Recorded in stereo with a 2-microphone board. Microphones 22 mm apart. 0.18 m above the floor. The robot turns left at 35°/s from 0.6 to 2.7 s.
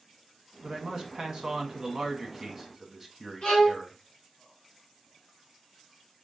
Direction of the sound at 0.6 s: 30° right (ahead or behind).